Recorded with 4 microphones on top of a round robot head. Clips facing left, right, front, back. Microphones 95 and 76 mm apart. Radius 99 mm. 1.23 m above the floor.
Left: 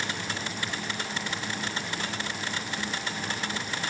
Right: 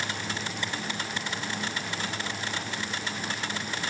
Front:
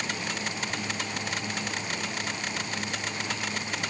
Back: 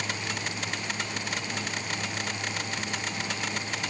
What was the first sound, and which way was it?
Only background noise.